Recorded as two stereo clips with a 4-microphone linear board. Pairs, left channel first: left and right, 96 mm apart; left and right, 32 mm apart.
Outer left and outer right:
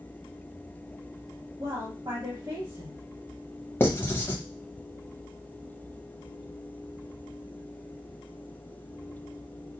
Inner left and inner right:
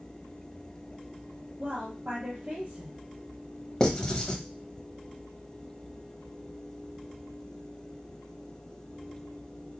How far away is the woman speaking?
About 1.2 m.